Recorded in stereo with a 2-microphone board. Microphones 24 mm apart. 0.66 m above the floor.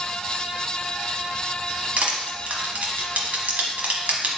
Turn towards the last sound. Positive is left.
turn(degrees=-65)  # may be behind; listen again after turning